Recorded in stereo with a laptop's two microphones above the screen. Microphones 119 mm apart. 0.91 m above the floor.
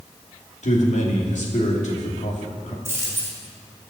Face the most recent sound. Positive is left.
turn(degrees=-20)  # may be behind; listen again after turning